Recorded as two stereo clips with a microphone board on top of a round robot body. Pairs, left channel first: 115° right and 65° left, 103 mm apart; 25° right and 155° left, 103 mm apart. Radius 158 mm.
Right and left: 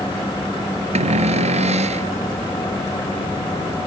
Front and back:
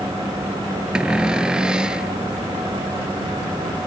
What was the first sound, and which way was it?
A cupboard door, 75° left.